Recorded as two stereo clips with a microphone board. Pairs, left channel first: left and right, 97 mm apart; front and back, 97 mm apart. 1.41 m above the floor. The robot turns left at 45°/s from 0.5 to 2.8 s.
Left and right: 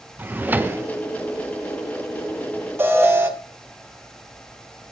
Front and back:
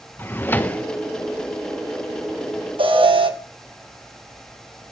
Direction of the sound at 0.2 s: 40° right.